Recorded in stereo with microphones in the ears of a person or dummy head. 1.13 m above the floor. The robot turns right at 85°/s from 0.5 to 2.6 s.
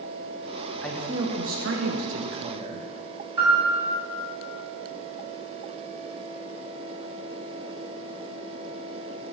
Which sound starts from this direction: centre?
A piano, at 3.4 s.